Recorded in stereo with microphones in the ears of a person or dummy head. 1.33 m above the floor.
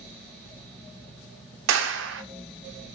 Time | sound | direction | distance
1.7 | a clap | 65° right (ahead or behind) | 0.6 m